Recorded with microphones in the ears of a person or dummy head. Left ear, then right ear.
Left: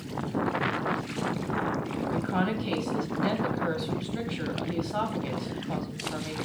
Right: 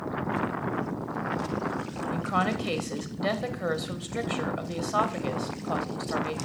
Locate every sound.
2.1 s a woman speaking: 35° right (ahead or behind), 1.0 m